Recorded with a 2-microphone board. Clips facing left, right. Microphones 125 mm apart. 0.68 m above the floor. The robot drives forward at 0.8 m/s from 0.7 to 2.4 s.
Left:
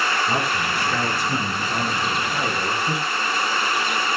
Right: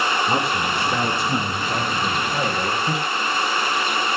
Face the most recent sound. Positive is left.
turn(degrees=-20)  # may be behind; listen again after turning